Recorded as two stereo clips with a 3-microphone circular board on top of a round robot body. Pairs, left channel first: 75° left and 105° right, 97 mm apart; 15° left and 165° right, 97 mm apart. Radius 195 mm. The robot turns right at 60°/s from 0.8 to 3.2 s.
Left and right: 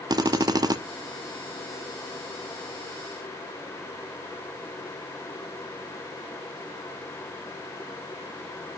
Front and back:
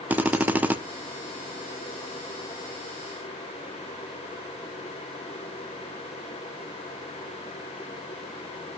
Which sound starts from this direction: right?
A drill, at 0.1 s.